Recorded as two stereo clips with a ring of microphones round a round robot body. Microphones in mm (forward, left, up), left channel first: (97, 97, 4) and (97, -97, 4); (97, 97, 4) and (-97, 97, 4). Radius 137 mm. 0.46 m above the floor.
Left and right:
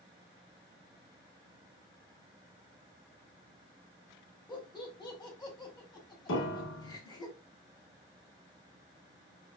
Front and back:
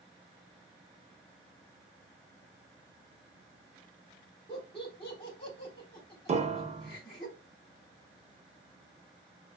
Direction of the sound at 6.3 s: 120° left.